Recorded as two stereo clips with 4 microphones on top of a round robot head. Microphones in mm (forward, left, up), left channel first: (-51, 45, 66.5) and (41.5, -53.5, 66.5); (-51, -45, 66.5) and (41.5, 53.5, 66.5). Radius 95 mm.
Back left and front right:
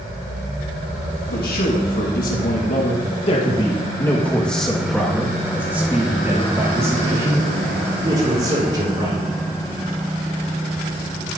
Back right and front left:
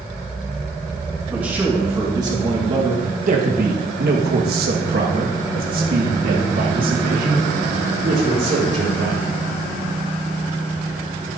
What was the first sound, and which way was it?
A man speaking, 125° left.